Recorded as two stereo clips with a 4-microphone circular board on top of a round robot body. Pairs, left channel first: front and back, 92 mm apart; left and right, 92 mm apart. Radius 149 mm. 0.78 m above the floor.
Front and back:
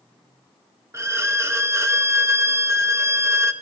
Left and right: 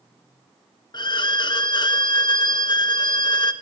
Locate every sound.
0.9 s a violin: 120° left, 1.0 m